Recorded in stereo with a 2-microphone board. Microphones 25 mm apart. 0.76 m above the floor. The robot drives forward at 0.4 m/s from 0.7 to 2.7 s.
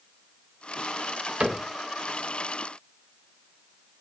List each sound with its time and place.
1.4 s a cupboard door: 55° right (ahead or behind), 1.3 m; by 1.6 s 50° right (ahead or behind), 1.4 m